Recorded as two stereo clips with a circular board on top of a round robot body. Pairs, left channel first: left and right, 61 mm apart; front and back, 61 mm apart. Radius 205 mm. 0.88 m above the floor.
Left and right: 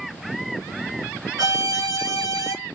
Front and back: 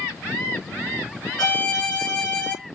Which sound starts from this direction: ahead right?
A violin, at 1.4 s.